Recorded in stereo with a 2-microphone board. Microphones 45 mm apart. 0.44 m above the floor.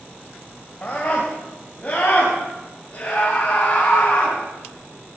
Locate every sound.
0.8 s a scream: 35° left (ahead or behind), 2.0 m; by 4.4 s 30° left (ahead or behind), 4.5 m